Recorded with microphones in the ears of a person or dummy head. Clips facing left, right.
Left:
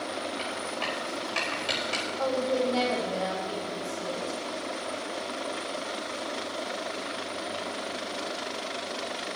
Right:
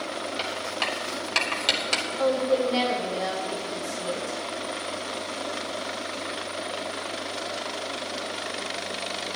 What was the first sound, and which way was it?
Writing, 80° right.